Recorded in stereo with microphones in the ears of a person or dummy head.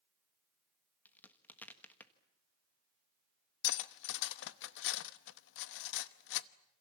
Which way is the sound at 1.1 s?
10° left (ahead or behind).